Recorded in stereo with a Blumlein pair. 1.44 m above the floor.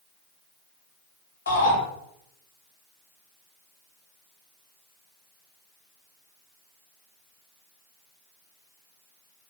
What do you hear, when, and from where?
1.5 s a shout: 65° left, 2 m